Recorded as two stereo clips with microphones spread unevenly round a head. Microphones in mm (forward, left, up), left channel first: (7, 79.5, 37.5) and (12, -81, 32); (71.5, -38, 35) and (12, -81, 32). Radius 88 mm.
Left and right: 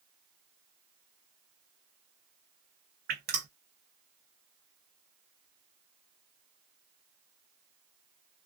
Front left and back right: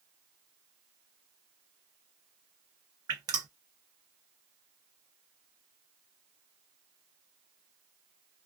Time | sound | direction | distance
3.1 | dripping | 120° right | 0.7 m